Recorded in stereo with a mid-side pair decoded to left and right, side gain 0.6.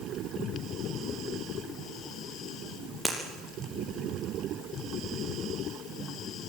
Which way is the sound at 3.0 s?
Straight ahead.